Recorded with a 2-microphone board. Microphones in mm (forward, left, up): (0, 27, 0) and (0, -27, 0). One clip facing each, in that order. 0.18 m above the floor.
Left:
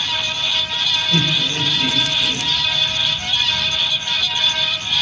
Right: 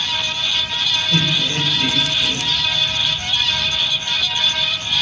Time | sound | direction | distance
1.1 | laughter | 35° right (ahead or behind) | 3.5 m